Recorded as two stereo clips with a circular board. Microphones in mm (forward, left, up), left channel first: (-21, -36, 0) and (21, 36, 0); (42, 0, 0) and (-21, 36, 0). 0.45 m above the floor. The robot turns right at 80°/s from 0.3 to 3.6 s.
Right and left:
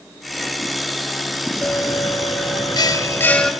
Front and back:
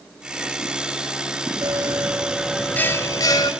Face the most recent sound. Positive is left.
turn(degrees=-30)